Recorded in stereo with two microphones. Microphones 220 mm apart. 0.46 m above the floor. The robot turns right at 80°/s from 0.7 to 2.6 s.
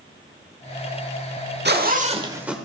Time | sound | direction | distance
1.6 | a zipper | 75° right | 1.3 m